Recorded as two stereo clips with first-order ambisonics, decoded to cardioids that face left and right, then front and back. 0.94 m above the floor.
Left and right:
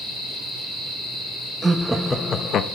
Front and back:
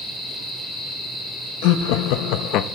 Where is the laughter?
10° right, 0.7 m; by 2.6 s 40° left, 0.6 m.